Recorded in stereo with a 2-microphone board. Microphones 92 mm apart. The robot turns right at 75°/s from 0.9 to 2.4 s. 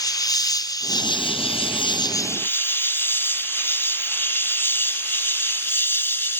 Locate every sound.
0.0 s an insect: 45° left; by 6.4 s 155° left